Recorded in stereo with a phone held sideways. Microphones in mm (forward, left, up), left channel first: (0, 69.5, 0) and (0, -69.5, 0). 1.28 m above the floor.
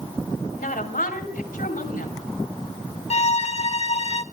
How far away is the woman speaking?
About 4 m.